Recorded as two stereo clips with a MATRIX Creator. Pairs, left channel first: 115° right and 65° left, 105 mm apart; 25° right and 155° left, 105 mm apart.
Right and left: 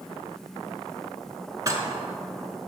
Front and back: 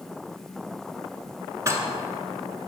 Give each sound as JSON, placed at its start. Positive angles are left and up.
{"t": 1.7, "sound": "dishes clattering", "azimuth_deg": 110, "distance_m": 1.1}